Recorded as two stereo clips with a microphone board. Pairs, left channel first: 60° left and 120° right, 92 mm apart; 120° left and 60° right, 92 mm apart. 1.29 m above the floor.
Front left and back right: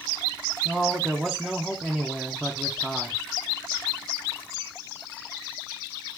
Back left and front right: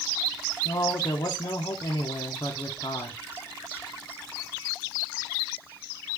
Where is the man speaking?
155° left, 0.6 m.